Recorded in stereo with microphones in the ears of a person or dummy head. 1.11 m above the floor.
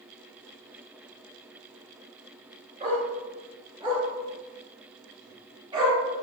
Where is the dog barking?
30° right (ahead or behind), 7.5 m; by 6.2 s 25° right (ahead or behind), 9 m.